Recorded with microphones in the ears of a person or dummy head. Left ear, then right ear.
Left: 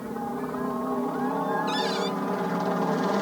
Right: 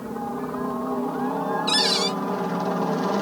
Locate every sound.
0.0 s a helicopter: 5° left (ahead or behind)
1.7 s a cupboard door: 35° right (ahead or behind)